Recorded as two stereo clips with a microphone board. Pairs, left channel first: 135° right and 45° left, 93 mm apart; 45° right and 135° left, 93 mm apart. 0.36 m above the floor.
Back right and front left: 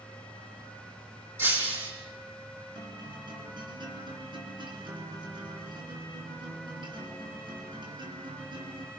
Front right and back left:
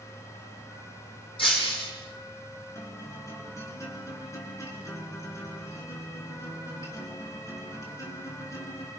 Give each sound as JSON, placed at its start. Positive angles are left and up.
{"t": 1.4, "sound": "breaking glass", "azimuth_deg": -20, "distance_m": 6.5}
{"t": 2.8, "sound": "a guitar", "azimuth_deg": 15, "distance_m": 5.0}